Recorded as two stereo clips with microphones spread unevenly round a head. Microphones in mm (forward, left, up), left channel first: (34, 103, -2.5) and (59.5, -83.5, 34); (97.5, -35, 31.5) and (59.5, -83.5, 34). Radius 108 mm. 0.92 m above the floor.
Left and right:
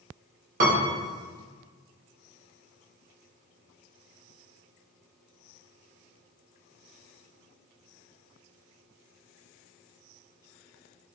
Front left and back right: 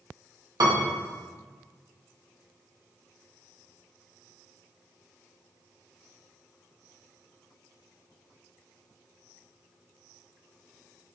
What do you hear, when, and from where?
0.6 s a piano: 135° right, 1.8 m